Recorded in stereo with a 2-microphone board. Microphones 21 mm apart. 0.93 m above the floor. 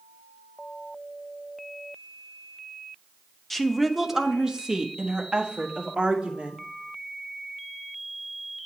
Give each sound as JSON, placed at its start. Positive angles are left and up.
{"t": 3.5, "sound": "a woman speaking", "side_deg": 10, "distance_m": 0.8}